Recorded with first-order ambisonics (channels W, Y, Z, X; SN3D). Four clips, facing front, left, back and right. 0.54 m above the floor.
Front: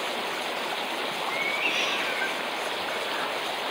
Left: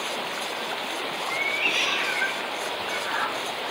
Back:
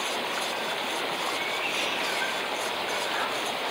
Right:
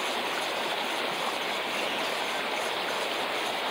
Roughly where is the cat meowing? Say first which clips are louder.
Left 6 dB, front 2 dB; ahead left.